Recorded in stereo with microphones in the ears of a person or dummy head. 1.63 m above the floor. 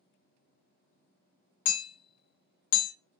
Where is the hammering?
75° left (ahead or behind), 1.0 m.